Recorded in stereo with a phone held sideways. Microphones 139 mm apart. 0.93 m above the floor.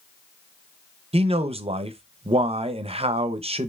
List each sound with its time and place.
1.1 s a man speaking: 45° right (ahead or behind), 0.5 m